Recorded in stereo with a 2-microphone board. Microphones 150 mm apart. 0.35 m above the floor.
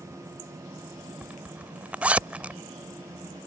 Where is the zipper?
10° right (ahead or behind).